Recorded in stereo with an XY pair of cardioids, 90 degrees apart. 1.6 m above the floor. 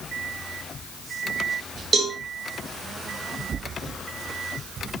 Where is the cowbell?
50° right, 3.5 m.